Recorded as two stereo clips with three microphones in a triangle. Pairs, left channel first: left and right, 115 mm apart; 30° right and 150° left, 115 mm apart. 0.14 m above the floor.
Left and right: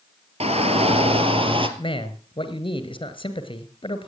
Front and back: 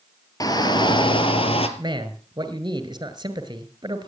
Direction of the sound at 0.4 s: 85° right.